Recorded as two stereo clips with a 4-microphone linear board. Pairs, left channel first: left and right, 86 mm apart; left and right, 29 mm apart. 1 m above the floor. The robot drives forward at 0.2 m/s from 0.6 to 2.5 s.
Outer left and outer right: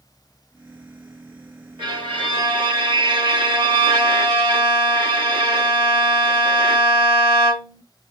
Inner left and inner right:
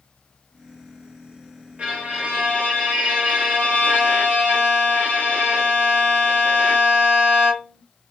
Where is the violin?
60° right (ahead or behind), 2.0 m; by 7.8 s 55° right (ahead or behind), 2 m.